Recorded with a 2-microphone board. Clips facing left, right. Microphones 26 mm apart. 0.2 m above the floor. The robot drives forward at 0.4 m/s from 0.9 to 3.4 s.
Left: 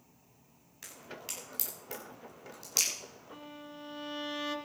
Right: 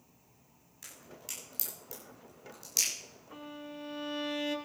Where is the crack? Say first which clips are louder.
Left 3 dB; 30° left (ahead or behind), 9.5 m; by 2.9 s 35° left (ahead or behind), 8.5 m.